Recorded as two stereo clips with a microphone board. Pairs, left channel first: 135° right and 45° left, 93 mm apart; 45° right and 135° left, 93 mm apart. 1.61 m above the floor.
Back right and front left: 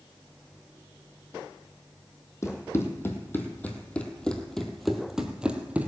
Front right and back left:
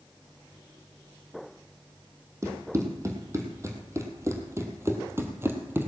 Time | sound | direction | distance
2.4 | running footsteps | straight behind | 2.5 m